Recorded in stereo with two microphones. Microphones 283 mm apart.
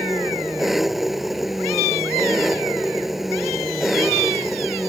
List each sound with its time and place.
0.0 s an engine running: centre (ahead or behind)